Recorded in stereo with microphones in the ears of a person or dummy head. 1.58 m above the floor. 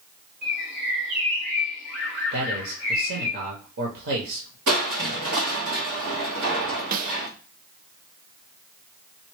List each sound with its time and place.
0.4 s a bird: 65° right (ahead or behind), 3 m
2.3 s a man speaking: 60° right (ahead or behind), 1.0 m
4.7 s crushing: 65° right (ahead or behind), 1.3 m
6.9 s a snare drum: 45° right (ahead or behind), 0.5 m